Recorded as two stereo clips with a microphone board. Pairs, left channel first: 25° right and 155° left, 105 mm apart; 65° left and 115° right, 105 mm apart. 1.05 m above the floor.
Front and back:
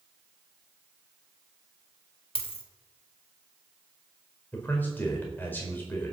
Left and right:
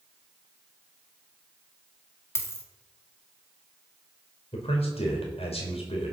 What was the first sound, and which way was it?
A dropped coin, 5° left.